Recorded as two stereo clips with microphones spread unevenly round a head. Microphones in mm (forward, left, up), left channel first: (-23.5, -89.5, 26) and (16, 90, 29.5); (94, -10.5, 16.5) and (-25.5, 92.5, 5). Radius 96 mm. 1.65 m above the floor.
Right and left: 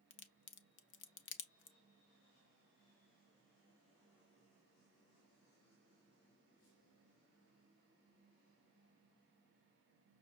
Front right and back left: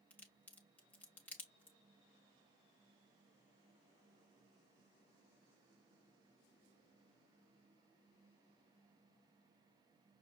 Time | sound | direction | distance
0.1 | a crack | 120° right | 0.6 m